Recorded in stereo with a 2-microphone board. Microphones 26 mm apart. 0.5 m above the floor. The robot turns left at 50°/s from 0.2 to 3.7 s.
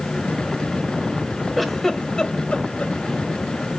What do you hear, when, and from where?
1.6 s a giggle: 5° right (ahead or behind), 1.3 m; by 2.9 s 60° left (ahead or behind), 1.3 m